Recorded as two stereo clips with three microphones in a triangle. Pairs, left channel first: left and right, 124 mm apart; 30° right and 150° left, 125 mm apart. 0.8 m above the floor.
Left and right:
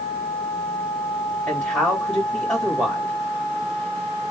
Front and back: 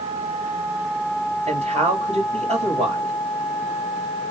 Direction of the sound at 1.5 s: 170° left.